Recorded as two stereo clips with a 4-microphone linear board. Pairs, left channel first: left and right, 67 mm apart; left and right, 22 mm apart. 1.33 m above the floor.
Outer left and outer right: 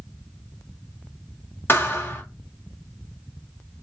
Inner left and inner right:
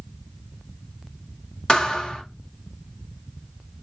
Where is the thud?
35° left (ahead or behind), 1.4 m.